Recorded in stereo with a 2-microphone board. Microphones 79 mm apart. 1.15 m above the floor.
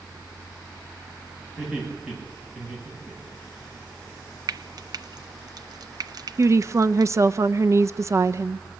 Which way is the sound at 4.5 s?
55° right (ahead or behind).